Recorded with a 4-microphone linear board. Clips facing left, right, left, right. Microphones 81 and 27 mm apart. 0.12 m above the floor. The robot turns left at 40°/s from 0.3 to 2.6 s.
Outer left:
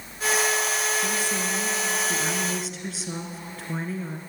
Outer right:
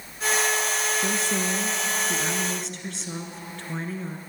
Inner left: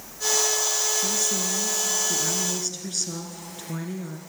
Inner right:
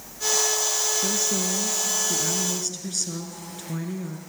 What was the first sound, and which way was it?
A woman speaking, 120° right.